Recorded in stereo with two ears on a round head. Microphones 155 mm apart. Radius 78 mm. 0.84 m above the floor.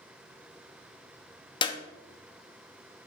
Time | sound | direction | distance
1.6 | a clap | 30° left (ahead or behind) | 0.9 m